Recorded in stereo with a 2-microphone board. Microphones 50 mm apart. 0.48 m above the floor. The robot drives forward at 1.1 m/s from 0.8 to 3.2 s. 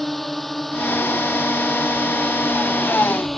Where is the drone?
5° left (ahead or behind).